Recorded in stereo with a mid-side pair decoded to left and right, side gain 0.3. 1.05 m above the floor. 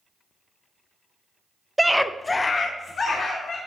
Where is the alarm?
No alarm in this recording.